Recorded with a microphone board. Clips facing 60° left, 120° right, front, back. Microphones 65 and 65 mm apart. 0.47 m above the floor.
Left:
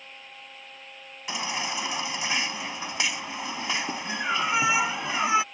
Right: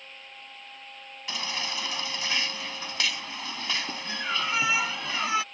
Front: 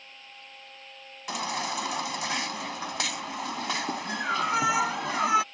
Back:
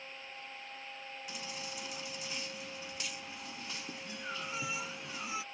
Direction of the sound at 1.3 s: 10° right.